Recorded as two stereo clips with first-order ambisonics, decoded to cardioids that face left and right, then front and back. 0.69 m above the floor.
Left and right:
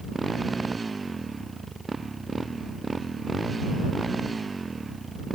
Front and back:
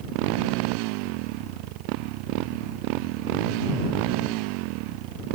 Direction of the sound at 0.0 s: 165° right.